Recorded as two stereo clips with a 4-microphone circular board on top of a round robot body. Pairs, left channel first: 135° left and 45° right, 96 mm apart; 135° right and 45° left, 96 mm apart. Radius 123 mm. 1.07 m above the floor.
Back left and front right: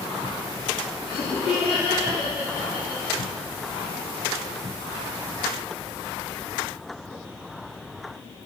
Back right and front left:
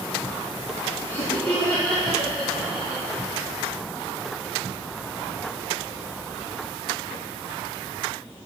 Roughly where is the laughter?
Behind.